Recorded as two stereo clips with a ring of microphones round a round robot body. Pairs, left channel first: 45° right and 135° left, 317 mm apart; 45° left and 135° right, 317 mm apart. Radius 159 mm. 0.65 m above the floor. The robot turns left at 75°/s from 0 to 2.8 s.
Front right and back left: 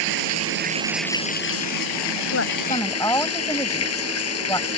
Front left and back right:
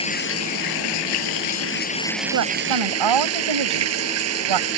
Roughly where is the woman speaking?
Right.